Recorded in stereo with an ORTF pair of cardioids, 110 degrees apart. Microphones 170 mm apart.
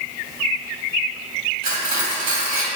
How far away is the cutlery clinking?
About 1.6 m.